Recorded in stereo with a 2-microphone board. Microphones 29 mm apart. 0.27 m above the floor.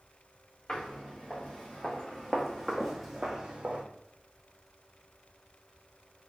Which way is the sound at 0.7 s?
40° left (ahead or behind).